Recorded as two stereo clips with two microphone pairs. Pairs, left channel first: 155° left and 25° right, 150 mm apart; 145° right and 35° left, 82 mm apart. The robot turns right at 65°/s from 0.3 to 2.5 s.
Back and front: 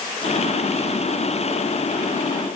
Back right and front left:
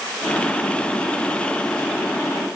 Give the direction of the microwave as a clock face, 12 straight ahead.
No microwave in this recording.